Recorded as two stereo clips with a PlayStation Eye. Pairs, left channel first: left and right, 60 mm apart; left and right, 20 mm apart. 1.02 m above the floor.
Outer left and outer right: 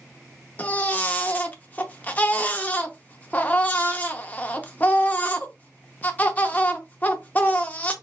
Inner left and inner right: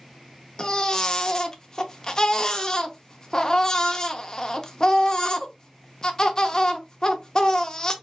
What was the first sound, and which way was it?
A baby crying, 30° left (ahead or behind).